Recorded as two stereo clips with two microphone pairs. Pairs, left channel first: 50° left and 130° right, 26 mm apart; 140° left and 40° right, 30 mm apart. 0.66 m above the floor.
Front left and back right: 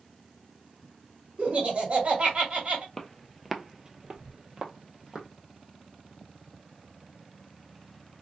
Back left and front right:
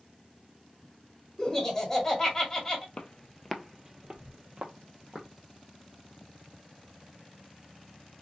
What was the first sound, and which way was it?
Laughter, 150° right.